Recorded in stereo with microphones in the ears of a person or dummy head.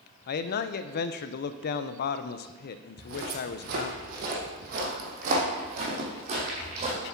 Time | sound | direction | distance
0.3 | a man speaking | 50° left (ahead or behind) | 0.5 m
3.0 | footsteps | 60° right (ahead or behind) | 2.5 m